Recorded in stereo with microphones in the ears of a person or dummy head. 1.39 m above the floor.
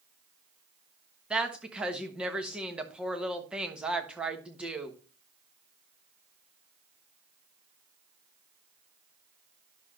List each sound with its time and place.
1.3 s a woman speaking: 10° right (ahead or behind), 1.3 m